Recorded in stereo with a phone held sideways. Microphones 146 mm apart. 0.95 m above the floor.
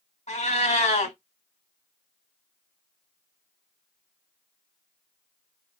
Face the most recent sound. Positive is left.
turn(degrees=50)  # may be behind; listen again after turning